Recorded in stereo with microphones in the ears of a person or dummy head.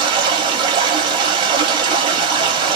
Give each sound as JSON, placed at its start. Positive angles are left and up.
{"t": 0.0, "sound": "running water", "side_deg": -30, "distance_m": 1.6}